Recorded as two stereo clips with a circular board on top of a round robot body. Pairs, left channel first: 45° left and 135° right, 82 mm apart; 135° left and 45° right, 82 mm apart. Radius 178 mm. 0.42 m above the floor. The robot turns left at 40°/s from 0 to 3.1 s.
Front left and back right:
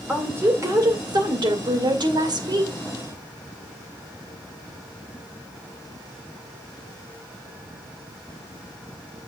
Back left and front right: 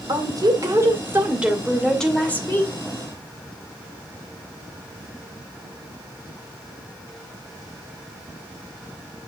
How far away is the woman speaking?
About 2.5 m.